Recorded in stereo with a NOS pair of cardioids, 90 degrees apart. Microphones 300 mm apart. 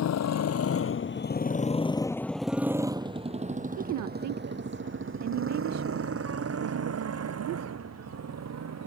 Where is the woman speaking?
65° right.